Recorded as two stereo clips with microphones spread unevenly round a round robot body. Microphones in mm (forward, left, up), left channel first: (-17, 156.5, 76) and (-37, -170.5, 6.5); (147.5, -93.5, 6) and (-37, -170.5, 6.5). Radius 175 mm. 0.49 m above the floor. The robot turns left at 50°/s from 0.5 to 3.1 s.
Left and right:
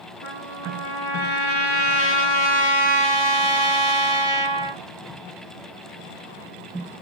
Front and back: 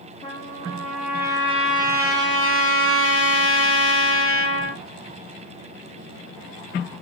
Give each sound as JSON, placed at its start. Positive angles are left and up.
{"t": 0.2, "sound": "a trumpet", "azimuth_deg": 140, "distance_m": 5.5}